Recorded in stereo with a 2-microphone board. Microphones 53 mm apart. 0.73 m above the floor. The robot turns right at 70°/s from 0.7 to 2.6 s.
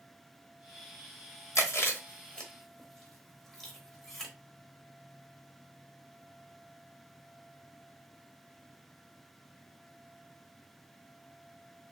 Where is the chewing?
75° left (ahead or behind), 1.0 m; by 4.3 s 10° left (ahead or behind), 1.0 m.